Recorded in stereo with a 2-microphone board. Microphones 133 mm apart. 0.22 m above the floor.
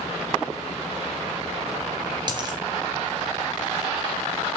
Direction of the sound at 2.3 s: 35° right (ahead or behind).